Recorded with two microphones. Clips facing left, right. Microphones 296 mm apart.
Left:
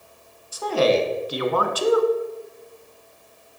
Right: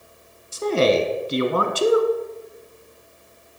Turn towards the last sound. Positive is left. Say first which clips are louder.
# right 1 dB
turn(degrees=-30)  # may be behind; listen again after turning